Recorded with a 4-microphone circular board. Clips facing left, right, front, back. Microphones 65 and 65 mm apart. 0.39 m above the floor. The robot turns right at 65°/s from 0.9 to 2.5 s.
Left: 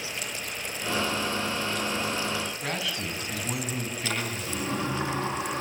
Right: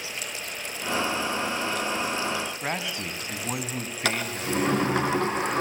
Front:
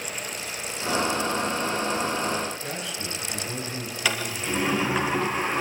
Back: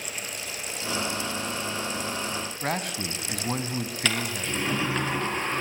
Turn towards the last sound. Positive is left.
turn(degrees=-80)